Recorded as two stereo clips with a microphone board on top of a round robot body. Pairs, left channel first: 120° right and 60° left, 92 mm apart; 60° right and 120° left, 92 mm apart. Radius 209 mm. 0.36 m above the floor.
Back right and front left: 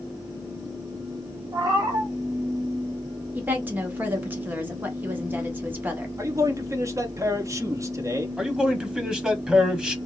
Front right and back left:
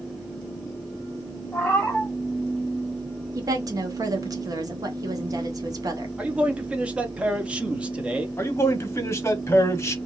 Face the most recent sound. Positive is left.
turn(degrees=-15)